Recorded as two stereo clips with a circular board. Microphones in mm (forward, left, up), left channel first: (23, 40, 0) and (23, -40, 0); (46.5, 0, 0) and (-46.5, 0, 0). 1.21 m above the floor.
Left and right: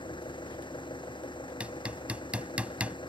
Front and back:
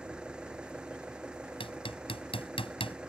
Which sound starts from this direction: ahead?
Hammering, at 1.6 s.